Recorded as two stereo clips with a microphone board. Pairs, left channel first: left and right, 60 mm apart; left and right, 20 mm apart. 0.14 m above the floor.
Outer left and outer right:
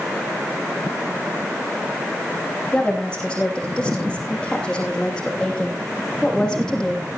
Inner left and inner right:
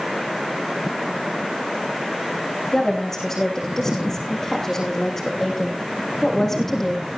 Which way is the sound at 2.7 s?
20° left (ahead or behind).